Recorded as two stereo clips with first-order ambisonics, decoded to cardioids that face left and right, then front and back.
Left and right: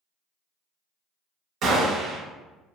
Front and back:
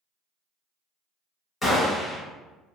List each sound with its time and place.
1.6 s a gunshot: 65° right, 0.7 m